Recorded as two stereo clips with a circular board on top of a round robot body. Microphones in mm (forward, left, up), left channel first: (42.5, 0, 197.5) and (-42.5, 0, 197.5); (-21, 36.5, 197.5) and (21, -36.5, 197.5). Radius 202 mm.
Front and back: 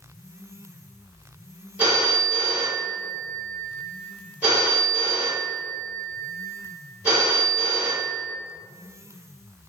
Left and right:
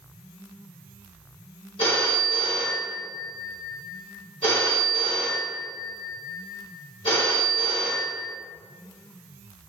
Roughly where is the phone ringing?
Left.